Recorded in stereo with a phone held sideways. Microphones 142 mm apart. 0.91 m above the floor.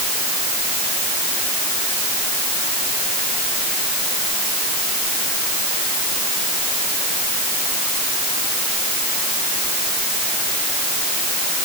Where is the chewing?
No chewing in this recording.